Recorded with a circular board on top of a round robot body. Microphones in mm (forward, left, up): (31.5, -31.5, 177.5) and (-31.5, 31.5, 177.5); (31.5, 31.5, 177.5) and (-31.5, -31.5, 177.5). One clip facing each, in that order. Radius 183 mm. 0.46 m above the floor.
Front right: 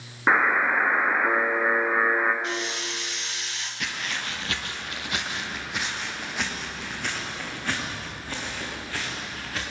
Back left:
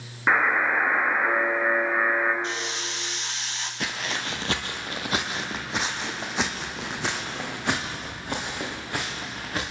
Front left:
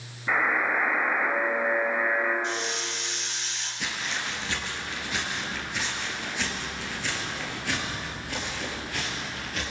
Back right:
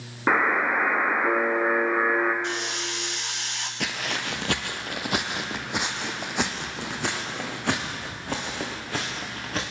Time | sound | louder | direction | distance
0.3 | a buzzer | front right 1 dB, back right 3 dB | 120° right | 1.4 m
2.4 | a hiss | front right 1 dB, back right 1 dB | 165° right | 0.6 m
3.8 | footsteps | back left 2 dB, back right 2 dB | 165° right | 0.6 m